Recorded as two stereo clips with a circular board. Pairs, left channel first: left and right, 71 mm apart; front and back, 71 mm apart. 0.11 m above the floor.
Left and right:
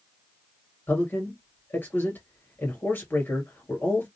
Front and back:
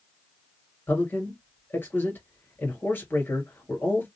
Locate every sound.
0.9 s a man speaking: 45° left, 1.9 m